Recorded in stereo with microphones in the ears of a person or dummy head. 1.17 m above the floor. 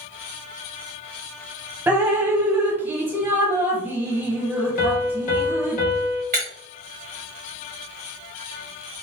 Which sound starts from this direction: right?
Breaking glass, at 6.3 s.